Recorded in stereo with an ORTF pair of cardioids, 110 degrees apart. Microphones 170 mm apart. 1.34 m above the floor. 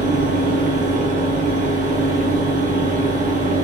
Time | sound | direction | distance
0.0 | a fan | 50° right | 0.7 m